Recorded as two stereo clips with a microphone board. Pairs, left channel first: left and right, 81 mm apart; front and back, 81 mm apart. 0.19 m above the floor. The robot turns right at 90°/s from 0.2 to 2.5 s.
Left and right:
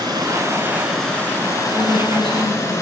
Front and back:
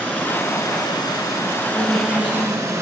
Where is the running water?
70° right, 2.5 m; by 2.8 s 140° left, 2.5 m.